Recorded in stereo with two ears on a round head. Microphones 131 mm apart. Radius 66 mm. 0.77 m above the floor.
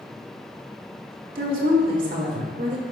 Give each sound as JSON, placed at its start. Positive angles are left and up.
{"t": 1.4, "sound": "a woman speaking", "side_deg": -65, "distance_m": 1.9}